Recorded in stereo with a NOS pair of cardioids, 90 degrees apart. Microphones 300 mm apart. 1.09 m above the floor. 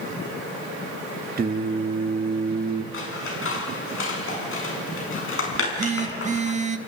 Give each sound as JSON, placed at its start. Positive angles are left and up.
{"t": 1.4, "sound": "singing", "azimuth_deg": -30, "distance_m": 1.4}
{"t": 2.9, "sound": "scissors", "azimuth_deg": 45, "distance_m": 6.5}
{"t": 5.5, "sound": "a phone buzzing", "azimuth_deg": -25, "distance_m": 1.5}